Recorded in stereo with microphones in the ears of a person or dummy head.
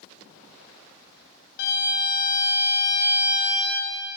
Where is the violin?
55° left (ahead or behind), 0.6 m.